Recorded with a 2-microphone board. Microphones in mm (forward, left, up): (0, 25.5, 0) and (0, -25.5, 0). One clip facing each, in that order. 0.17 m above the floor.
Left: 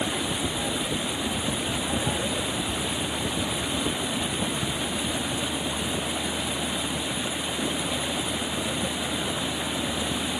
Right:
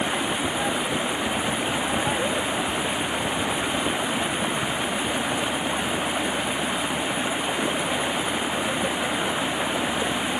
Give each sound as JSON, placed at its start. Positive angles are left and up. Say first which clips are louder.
{"t": 0.0, "sound": "running water", "louder": "right 3 dB", "side_deg": -30}